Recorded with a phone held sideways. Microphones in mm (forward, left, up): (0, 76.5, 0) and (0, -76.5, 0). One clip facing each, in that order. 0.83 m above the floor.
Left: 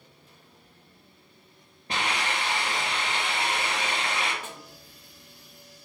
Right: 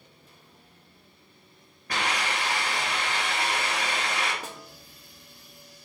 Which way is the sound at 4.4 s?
35° right (ahead or behind).